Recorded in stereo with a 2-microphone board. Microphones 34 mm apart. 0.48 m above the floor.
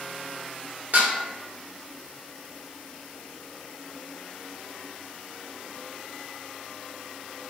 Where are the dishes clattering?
55° right (ahead or behind), 0.7 m.